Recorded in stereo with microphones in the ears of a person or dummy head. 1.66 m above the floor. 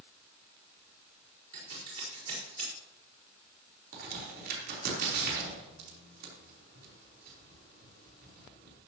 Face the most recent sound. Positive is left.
turn(degrees=-60)  # may be behind; listen again after turning